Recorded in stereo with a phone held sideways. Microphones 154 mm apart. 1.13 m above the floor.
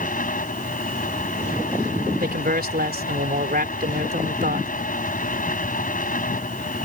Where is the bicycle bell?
No bicycle bell in this recording.